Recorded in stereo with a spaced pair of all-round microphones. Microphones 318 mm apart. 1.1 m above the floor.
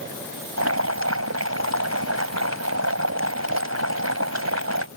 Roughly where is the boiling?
Right.